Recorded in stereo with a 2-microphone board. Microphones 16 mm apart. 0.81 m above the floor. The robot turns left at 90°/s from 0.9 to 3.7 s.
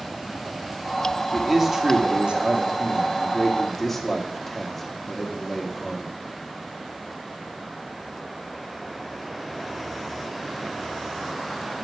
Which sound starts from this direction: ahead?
A man speaking, at 1.3 s.